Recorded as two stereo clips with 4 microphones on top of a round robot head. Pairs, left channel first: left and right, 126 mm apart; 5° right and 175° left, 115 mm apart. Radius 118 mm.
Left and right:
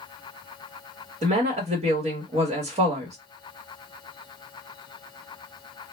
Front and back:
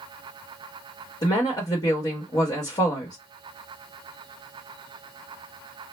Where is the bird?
No bird in this recording.